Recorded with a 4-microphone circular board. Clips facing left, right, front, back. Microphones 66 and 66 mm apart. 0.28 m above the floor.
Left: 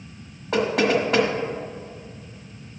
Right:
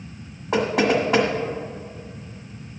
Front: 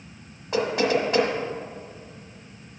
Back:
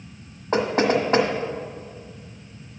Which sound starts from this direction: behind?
Knocking, at 0.5 s.